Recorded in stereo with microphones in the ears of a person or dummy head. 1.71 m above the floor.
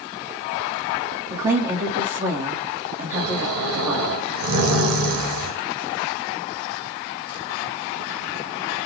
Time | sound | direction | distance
1.3 | a woman speaking | 20° right (ahead or behind) | 1.5 m
3.1 | snoring | 75° right (ahead or behind) | 2 m